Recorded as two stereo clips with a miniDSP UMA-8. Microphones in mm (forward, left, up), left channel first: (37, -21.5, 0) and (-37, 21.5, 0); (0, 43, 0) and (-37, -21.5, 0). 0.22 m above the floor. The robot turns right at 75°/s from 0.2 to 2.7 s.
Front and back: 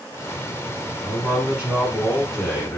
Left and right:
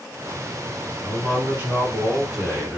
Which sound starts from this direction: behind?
A man speaking, at 1.0 s.